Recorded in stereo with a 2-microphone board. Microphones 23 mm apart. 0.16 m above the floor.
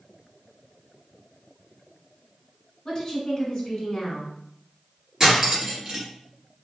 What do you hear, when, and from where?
2.9 s a woman speaking: 35° left (ahead or behind), 1.9 m
5.2 s cutlery clinking: 20° right (ahead or behind), 1.9 m